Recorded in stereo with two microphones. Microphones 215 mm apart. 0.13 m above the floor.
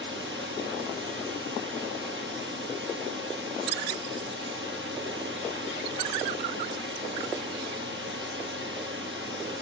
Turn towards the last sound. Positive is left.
turn(degrees=-70)  # may be behind; listen again after turning